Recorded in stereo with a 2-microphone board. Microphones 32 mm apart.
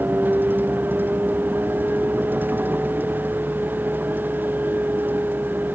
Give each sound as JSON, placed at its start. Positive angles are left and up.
{"t": 0.0, "sound": "a vehicle", "side_deg": -85}